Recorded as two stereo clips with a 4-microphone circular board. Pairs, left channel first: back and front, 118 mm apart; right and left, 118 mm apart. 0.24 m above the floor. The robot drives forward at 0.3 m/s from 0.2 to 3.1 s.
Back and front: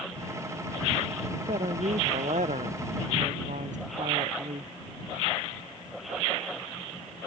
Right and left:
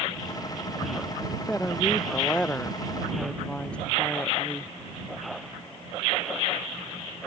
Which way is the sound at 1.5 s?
10° right.